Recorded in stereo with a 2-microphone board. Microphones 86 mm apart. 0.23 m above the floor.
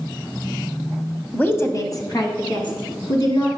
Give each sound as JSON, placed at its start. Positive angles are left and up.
{"t": 1.3, "sound": "a woman speaking", "side_deg": 15, "distance_m": 1.0}